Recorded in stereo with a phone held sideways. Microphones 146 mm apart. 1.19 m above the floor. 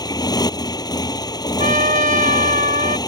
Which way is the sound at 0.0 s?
25° left (ahead or behind).